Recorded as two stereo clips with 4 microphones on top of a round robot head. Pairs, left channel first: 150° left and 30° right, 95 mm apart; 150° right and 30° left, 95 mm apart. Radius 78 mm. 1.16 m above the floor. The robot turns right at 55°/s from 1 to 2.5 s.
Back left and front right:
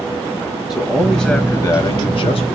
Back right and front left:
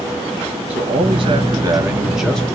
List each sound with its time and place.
0.7 s a man speaking: 55° left, 1.3 m; by 2.6 s 135° left, 1.3 m